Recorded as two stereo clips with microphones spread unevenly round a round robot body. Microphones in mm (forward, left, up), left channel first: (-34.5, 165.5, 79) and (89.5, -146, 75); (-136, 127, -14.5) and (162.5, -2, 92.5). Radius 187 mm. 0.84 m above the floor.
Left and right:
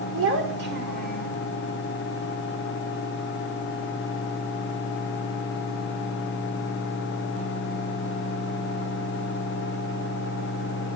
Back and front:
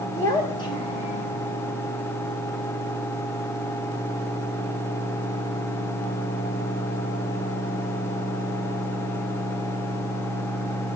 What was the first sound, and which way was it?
A child speaking, 125° right.